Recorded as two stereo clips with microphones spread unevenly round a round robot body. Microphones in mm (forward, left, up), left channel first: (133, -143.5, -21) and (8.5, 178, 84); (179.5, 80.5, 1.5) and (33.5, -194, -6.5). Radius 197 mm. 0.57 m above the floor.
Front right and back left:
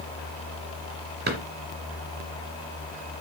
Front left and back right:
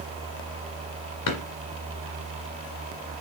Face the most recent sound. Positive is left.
turn(degrees=50)